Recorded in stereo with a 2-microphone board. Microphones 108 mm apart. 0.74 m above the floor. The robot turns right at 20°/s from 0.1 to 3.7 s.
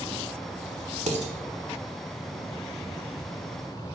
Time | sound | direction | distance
1.1 | dishes clattering | 80° right | 1.2 m